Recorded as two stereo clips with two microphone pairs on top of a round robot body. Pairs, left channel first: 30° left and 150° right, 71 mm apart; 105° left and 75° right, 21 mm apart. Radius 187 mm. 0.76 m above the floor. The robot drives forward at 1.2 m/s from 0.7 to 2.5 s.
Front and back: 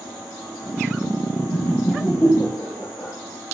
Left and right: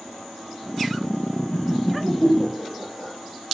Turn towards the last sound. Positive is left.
turn(degrees=85)